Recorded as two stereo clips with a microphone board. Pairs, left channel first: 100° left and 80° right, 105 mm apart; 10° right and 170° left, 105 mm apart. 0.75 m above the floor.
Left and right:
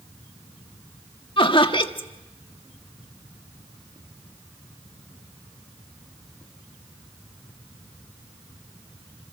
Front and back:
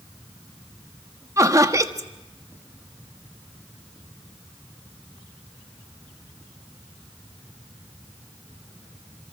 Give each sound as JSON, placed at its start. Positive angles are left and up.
{"t": 1.4, "sound": "laughter", "azimuth_deg": 115, "distance_m": 1.4}